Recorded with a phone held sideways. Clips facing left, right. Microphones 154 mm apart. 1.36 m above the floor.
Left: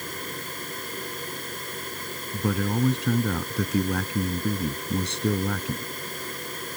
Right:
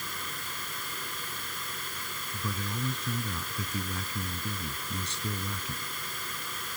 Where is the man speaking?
70° left (ahead or behind).